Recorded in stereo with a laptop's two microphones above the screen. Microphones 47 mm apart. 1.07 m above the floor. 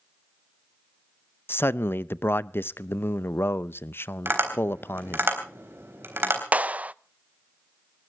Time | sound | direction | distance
1.5 | a man speaking | 55° left (ahead or behind) | 0.6 m
4.2 | tapping | 55° right (ahead or behind) | 3.5 m
6.5 | a clap | 30° right (ahead or behind) | 0.5 m